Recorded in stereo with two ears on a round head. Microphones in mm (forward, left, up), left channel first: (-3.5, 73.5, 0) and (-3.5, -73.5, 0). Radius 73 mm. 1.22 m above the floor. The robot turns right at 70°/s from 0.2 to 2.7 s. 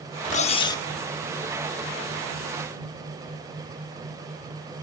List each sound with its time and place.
0.3 s cutlery clinking: 125° left; by 0.8 s 165° left